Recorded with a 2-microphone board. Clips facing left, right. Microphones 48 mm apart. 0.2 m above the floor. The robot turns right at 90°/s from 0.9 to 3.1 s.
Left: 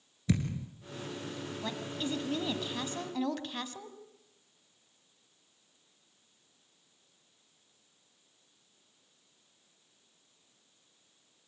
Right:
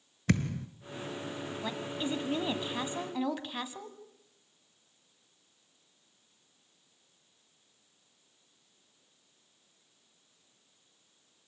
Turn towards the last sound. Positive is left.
turn(degrees=-10)  # may be behind; listen again after turning